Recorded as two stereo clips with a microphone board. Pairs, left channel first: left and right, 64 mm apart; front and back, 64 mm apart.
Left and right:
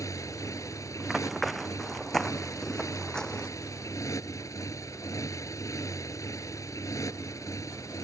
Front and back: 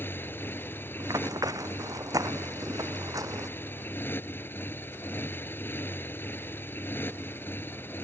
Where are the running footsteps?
Straight behind; by 3.5 s 165° left.